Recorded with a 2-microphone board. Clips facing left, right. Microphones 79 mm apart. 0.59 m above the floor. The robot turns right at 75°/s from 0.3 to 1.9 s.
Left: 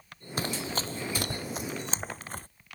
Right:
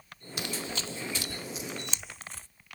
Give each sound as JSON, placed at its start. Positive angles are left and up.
{"t": 0.4, "sound": "running footsteps", "side_deg": 40}